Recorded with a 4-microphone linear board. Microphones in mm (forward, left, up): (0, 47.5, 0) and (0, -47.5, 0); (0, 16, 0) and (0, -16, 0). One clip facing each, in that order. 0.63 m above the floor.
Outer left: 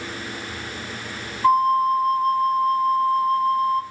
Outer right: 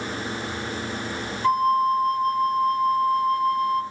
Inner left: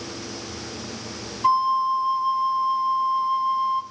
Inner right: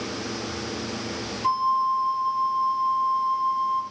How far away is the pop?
I don't hear a pop.